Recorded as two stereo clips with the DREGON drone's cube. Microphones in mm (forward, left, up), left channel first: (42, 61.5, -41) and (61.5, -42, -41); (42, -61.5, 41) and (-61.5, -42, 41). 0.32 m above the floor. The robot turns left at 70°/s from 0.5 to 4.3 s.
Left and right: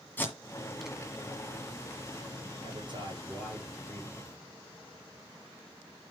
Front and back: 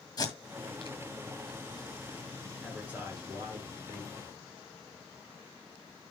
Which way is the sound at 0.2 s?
30° left.